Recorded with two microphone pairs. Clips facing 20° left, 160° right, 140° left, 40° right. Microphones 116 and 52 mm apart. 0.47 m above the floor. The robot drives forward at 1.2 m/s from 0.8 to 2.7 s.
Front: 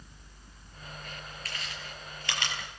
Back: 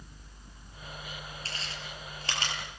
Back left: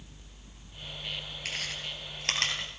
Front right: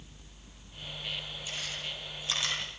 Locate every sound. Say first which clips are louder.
1.4 s chewing: front 1 dB, back left 4 dB; 140° left, 8.5 m; by 2.5 s 145° left, 9.5 m